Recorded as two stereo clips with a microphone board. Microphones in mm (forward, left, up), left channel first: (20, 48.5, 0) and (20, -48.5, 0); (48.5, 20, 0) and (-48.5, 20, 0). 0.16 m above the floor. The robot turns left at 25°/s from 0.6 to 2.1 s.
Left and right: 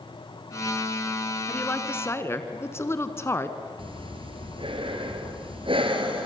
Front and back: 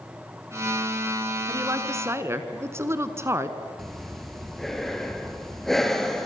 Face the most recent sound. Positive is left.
turn(degrees=-85)